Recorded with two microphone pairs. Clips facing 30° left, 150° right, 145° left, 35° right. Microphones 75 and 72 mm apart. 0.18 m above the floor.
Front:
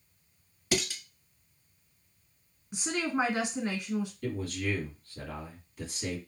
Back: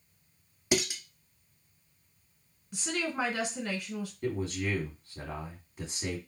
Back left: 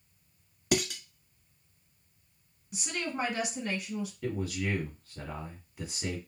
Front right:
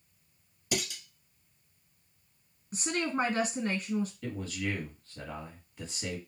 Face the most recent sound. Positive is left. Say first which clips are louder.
# back 1 dB, back left 2 dB
turn(degrees=-150)